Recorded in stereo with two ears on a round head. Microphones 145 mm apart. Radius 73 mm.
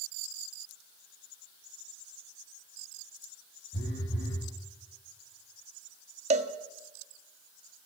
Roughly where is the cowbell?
Right.